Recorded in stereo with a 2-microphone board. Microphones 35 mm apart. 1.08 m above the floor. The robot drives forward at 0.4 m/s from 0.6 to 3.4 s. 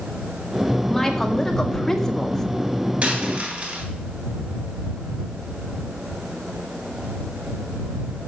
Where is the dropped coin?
40° right (ahead or behind), 3 m; by 3.8 s 35° right (ahead or behind), 3 m.